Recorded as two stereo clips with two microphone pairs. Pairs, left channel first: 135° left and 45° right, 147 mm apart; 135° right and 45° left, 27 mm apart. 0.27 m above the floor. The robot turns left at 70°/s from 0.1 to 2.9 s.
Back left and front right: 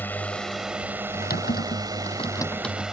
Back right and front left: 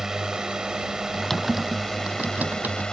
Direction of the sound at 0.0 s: 80° left.